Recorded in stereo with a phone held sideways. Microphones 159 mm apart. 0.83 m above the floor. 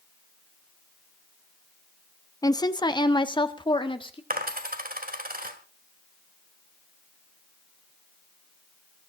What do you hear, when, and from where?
2.4 s a woman speaking: 20° left (ahead or behind), 0.8 m; by 4.2 s 30° left (ahead or behind), 1.8 m
4.3 s a dropped coin: 60° right (ahead or behind), 1.8 m